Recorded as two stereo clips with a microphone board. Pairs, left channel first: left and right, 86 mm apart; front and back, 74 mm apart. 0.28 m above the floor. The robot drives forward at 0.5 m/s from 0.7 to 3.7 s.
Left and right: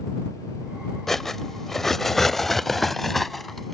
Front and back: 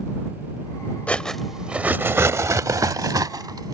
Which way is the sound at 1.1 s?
15° left.